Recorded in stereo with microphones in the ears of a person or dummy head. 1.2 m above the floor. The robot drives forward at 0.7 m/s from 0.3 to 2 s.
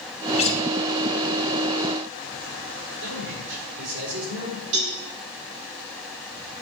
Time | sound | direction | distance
0.4 | a guitar | 30° left (ahead or behind) | 1.0 m
3.0 | a man speaking | 70° right (ahead or behind) | 4.5 m
4.7 | a cowbell | 65° right (ahead or behind) | 3.5 m